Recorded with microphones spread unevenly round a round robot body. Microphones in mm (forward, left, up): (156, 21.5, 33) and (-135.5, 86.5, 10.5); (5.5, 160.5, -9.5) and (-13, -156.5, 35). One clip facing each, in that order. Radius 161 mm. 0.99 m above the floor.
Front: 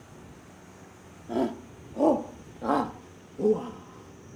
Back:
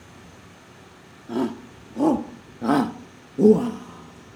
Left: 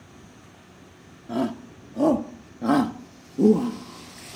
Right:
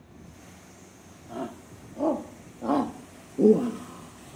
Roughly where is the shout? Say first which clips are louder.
Back 3 dB, left 10 dB; left.